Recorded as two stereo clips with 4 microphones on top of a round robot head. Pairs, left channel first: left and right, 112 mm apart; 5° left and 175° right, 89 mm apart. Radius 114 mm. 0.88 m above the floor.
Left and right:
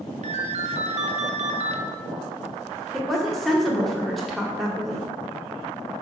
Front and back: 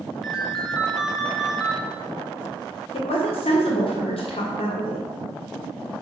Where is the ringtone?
85° right, 0.9 m.